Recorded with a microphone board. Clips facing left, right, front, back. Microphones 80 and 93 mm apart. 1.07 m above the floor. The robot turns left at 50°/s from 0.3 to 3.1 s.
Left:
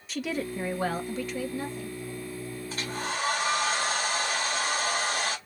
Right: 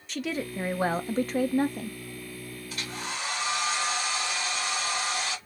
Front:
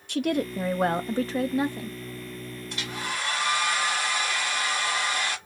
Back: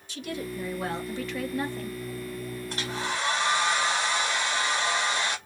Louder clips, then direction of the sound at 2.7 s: Left 3 dB, back 1 dB; 140° left.